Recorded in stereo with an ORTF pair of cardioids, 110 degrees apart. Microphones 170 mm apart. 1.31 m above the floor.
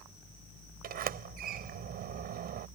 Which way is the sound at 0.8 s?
60° right.